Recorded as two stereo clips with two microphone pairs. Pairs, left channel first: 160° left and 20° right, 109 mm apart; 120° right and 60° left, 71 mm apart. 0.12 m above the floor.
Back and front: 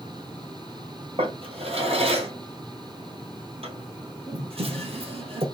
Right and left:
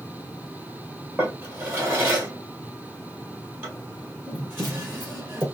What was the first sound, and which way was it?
A drawer, 5° left.